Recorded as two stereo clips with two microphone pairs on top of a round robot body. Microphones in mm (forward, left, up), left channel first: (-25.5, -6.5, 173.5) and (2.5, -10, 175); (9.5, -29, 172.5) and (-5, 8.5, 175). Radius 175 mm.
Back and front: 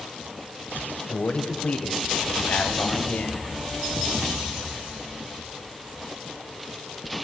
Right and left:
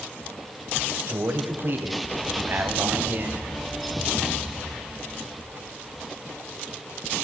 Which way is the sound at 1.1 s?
135° left.